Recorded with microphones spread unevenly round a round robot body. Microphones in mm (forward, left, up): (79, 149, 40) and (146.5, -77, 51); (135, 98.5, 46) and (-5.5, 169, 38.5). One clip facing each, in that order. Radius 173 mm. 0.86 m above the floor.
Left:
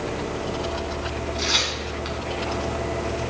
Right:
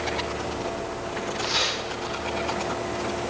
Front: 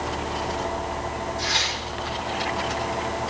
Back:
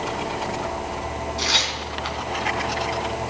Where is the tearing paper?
145° left, 2.5 m.